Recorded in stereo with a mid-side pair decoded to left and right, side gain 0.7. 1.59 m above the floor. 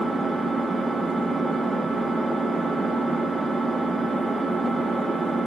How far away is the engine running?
About 1.8 m.